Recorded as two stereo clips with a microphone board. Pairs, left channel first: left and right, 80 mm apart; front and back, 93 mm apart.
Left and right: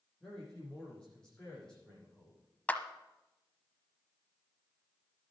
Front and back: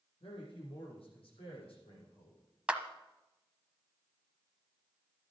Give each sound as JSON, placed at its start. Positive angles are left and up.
{"t": 0.2, "sound": "a man speaking", "azimuth_deg": 10, "distance_m": 7.5}
{"t": 2.7, "sound": "a clap", "azimuth_deg": 120, "distance_m": 1.0}